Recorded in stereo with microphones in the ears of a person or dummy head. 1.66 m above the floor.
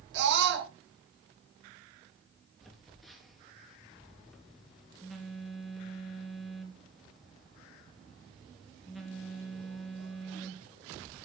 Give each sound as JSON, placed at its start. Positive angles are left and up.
{"t": 0.1, "sound": "a scream", "side_deg": -65, "distance_m": 2.0}
{"t": 2.6, "sound": "a phone buzzing", "side_deg": 0, "distance_m": 3.0}